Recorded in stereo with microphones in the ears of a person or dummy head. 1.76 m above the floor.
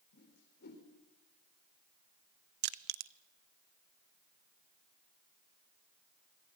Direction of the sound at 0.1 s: 50° left (ahead or behind).